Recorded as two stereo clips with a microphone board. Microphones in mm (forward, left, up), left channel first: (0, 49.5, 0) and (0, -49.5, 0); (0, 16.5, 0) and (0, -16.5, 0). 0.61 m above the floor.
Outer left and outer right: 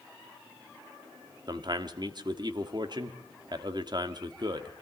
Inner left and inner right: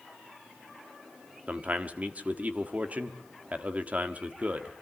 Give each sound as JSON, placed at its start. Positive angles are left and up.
{"t": 1.5, "sound": "a man speaking", "side_deg": -45, "distance_m": 1.3}